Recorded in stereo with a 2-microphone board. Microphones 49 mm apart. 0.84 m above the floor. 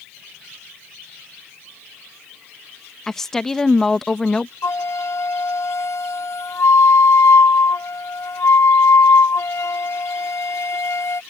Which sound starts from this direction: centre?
A woman speaking, at 3.1 s.